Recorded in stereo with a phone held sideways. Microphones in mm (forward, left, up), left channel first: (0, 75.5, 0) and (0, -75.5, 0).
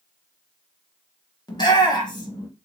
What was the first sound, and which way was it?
A shout, 30° left (ahead or behind).